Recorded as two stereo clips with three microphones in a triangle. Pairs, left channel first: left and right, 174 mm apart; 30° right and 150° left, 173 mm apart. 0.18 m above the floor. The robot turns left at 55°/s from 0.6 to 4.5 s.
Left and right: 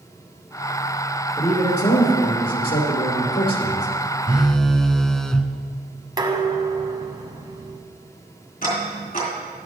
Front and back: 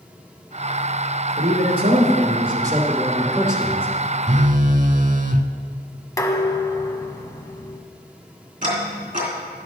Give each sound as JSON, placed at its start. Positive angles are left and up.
{"t": 1.4, "sound": "a man speaking", "azimuth_deg": 160, "distance_m": 2.5}
{"t": 4.3, "sound": "a phone buzzing", "azimuth_deg": -170, "distance_m": 0.5}
{"t": 6.2, "sound": "dishes clattering", "azimuth_deg": -70, "distance_m": 0.9}
{"t": 8.6, "sound": "ticking", "azimuth_deg": 120, "distance_m": 3.5}